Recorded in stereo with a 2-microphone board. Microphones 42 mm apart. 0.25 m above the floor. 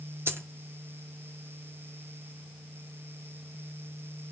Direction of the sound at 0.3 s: 65° right (ahead or behind).